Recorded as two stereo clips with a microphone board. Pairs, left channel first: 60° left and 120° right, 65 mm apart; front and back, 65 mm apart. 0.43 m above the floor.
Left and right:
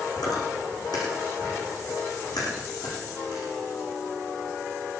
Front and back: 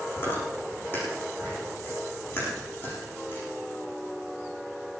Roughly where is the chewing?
Ahead left.